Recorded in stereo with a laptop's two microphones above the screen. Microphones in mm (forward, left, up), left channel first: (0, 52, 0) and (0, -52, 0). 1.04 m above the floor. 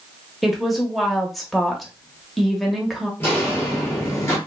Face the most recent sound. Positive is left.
turn(degrees=30)  # may be behind; listen again after turning